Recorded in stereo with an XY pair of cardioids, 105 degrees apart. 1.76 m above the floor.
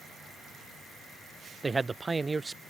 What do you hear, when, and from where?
1.6 s a man speaking: 25° right